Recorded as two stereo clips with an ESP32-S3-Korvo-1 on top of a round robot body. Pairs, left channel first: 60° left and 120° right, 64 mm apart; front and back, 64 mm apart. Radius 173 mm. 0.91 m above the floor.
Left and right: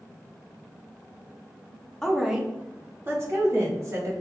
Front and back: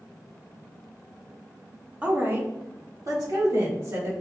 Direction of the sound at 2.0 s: 135° left.